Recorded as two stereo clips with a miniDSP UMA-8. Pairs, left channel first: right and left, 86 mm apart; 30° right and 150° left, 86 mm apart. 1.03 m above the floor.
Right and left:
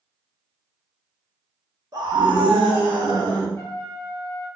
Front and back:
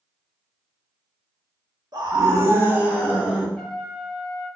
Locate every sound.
1.9 s a scream: 125° left, 0.7 m; by 3.5 s 65° left, 1.3 m
3.6 s a trumpet: 110° right, 0.6 m